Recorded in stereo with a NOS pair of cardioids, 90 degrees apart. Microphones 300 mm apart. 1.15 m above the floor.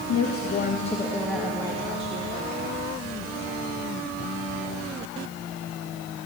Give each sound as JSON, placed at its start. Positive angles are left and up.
{"t": 0.1, "sound": "a woman speaking", "azimuth_deg": 60, "distance_m": 1.4}